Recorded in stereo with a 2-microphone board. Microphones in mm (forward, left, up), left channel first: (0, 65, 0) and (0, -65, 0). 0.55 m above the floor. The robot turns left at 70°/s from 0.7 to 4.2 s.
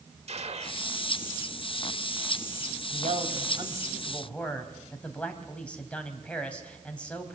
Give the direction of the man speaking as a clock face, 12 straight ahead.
3 o'clock.